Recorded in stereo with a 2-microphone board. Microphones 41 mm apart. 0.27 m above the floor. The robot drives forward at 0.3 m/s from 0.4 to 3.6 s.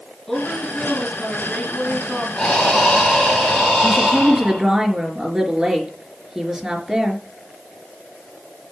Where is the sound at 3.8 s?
15° right (ahead or behind), 3.5 m.